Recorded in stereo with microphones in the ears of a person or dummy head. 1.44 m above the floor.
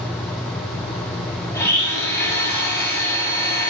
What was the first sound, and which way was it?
A blender, 15° left (ahead or behind).